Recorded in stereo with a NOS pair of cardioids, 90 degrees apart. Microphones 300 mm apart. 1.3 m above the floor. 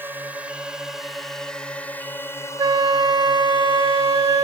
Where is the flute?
15° right.